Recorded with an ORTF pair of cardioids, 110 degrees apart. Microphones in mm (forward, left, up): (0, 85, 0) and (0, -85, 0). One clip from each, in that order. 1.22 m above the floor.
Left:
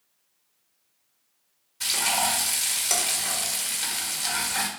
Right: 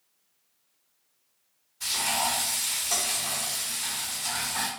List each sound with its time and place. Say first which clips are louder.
1.8 s frying: left 3 dB; 55° left, 1.0 m